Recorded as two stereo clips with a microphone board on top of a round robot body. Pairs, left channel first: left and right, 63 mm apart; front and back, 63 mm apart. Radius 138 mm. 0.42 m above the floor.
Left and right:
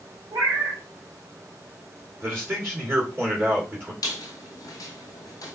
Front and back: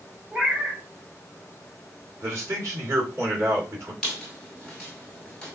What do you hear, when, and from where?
0.3 s a cat meowing: 105° right, 1.3 m
2.2 s a man speaking: 130° right, 2.5 m
4.0 s a squeak: 80° left, 0.6 m